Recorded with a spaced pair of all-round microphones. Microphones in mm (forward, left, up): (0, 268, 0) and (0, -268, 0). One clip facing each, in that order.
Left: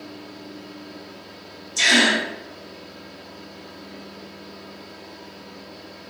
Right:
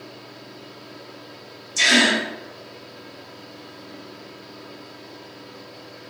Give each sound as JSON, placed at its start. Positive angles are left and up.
{"t": 0.0, "sound": "a fan", "side_deg": 45, "distance_m": 1.8}
{"t": 1.8, "sound": "a gasp", "side_deg": -50, "distance_m": 1.2}